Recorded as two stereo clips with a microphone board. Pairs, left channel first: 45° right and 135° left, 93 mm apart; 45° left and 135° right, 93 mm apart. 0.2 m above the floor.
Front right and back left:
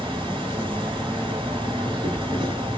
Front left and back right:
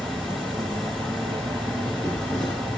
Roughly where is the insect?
Behind left.